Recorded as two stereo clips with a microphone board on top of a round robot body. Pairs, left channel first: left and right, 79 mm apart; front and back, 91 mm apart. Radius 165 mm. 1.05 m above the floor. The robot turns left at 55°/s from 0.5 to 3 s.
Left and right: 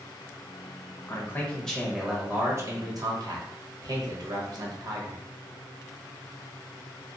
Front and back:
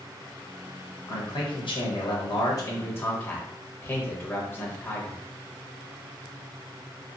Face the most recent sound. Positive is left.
turn(degrees=-65)